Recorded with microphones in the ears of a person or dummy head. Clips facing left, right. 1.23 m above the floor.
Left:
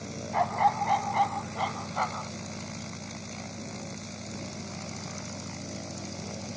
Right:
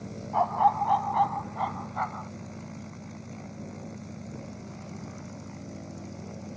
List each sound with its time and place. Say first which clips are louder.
0.3 s a dog barking: right 2 dB; 20° left (ahead or behind); by 2.3 s 45° left (ahead or behind)